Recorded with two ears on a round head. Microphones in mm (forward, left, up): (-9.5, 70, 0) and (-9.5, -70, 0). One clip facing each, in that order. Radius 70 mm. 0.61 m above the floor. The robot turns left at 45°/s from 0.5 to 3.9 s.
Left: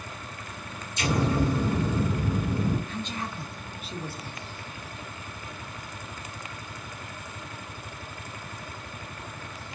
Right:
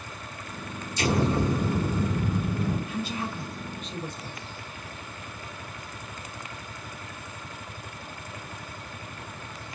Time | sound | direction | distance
1.0 | an explosion | 135° right | 1.6 m
2.9 | a woman speaking | 10° right (ahead or behind) | 0.8 m